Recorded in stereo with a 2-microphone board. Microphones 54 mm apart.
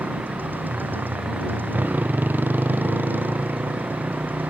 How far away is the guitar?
No guitar in this recording.